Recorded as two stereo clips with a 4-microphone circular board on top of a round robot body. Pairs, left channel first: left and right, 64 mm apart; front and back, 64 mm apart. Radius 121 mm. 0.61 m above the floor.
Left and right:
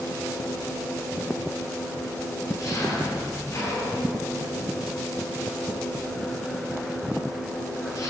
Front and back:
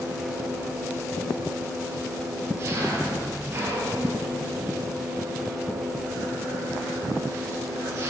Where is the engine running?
125° left, 8.5 m.